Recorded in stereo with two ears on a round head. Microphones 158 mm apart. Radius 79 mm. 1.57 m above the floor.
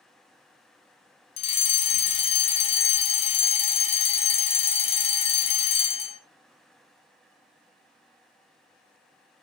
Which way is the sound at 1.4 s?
35° left (ahead or behind).